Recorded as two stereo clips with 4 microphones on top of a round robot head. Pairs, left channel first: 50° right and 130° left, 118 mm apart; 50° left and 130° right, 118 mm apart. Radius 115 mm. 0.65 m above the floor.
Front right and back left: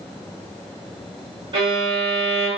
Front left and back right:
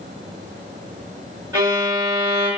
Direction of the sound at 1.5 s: 170° left.